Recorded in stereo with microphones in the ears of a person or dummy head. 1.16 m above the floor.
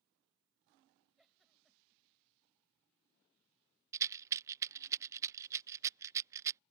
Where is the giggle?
Centre (ahead or behind).